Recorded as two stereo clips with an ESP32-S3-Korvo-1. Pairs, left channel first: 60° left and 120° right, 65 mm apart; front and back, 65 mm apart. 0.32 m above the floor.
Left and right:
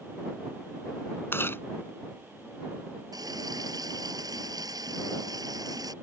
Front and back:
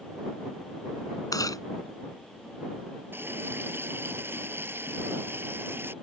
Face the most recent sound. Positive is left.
turn(degrees=-125)